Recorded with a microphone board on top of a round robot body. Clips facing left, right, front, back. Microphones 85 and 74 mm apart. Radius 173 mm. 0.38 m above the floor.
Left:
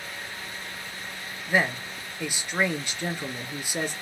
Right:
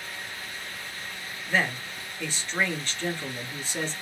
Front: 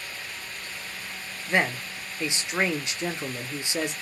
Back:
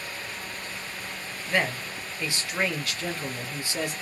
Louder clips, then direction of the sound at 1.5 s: Left 2 dB, front 2 dB; 35° left.